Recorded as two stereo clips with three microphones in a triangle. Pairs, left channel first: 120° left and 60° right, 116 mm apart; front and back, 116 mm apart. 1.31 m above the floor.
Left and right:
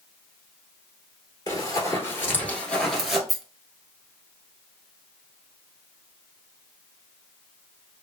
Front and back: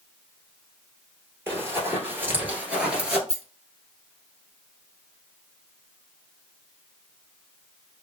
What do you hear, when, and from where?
1.5 s running footsteps: 130° left, 1.5 m; by 3.2 s 120° right, 1.2 m
3.3 s a rattle: 30° left, 0.7 m